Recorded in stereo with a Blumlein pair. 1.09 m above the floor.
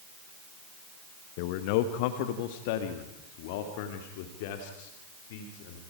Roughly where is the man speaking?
Ahead left.